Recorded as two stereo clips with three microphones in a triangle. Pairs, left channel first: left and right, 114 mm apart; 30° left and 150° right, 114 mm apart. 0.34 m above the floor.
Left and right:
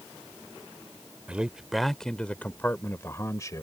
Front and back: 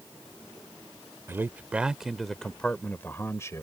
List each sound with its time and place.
1.3 s a man speaking: 155° right; by 3.6 s 65° left